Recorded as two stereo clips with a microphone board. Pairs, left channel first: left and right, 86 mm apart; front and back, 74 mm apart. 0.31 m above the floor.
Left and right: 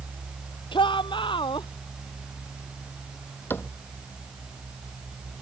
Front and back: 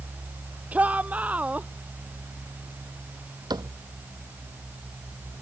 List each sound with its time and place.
0.7 s a shout: 110° left
3.5 s a cupboard door: 155° left